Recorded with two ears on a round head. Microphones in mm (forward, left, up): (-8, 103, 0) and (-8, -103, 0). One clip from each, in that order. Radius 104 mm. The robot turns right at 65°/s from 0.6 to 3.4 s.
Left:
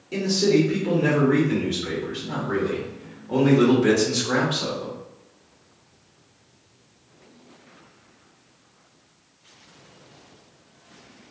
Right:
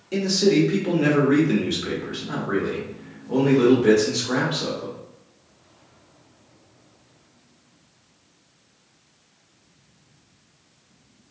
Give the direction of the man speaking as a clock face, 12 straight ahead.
5 o'clock.